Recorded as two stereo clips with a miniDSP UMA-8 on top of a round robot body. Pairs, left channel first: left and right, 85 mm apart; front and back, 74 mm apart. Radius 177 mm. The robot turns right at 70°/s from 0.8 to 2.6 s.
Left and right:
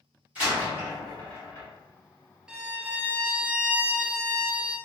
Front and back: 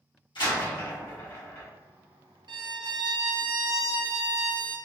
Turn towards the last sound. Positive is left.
turn(degrees=-165)